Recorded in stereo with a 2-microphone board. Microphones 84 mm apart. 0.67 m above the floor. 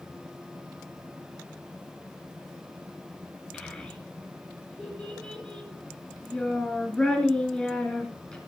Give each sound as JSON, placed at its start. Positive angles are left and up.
{"t": 3.5, "sound": "a child speaking", "side_deg": 5, "distance_m": 4.5}